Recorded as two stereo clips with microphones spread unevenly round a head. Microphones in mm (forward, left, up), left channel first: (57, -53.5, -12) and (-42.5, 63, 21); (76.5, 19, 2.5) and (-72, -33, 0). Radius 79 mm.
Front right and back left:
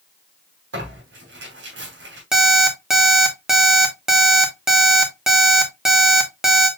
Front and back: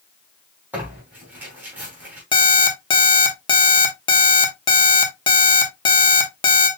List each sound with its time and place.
0.7 s tearing paper: 120° left, 3 m
2.3 s an alarm clock: 60° left, 1.0 m